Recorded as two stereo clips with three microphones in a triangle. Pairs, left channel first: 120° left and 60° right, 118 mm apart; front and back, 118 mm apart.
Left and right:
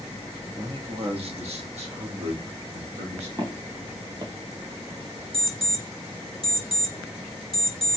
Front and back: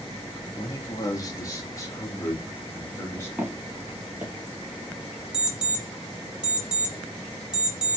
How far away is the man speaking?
About 0.9 m.